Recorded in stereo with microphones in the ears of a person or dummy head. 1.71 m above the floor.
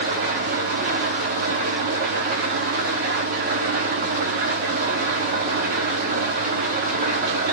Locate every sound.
0.0 s an engine running: 50° right (ahead or behind), 1.0 m